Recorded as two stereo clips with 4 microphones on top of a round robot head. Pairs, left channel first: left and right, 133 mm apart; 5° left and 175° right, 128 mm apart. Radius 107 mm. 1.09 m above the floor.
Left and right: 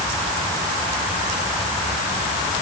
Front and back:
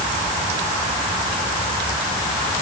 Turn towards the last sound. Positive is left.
No sound to turn to.